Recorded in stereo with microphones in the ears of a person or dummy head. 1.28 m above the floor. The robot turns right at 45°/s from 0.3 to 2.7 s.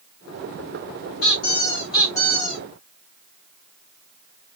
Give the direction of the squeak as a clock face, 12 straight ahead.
8 o'clock.